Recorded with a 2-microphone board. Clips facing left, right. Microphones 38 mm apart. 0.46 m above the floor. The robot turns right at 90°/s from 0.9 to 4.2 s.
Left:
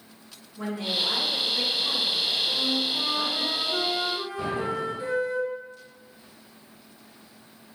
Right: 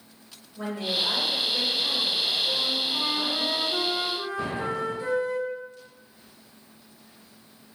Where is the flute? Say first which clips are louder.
Left 1 dB; 105° right, 0.8 m; by 5.4 s 50° left, 0.8 m.